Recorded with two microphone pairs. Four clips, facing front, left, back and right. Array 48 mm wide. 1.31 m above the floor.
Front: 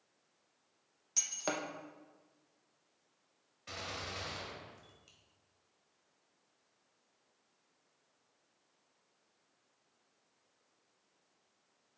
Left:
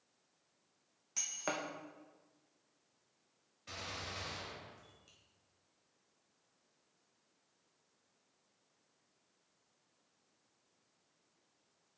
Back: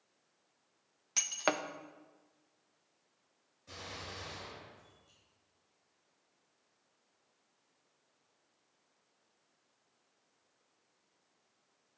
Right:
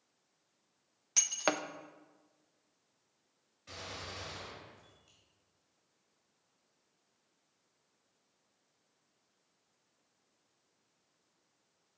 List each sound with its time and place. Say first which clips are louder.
1.2 s breaking glass: right 7 dB, back 5 dB; 145° right, 0.5 m
3.7 s a gunshot: even, front 3 dB; 15° left, 2.5 m